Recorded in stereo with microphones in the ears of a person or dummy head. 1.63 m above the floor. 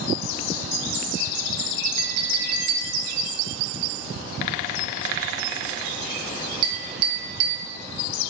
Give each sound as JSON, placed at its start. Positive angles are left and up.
{"t": 2.0, "sound": "a clink", "side_deg": -30, "distance_m": 0.9}